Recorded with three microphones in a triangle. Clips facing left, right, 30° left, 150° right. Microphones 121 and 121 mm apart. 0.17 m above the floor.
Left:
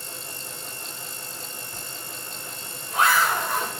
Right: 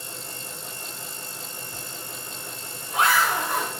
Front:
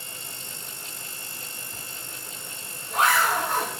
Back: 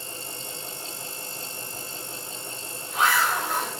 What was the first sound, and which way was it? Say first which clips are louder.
A zipper: right 1 dB, back 4 dB; 20° right.